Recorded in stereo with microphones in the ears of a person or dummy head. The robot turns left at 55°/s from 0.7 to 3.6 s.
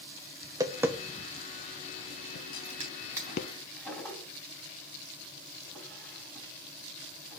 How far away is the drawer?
About 3.5 m.